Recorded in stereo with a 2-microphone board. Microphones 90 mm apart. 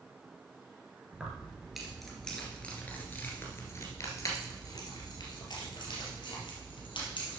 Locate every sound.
1.1 s keys jangling: 10° right (ahead or behind), 2 m; by 7.4 s 70° left (ahead or behind), 3.5 m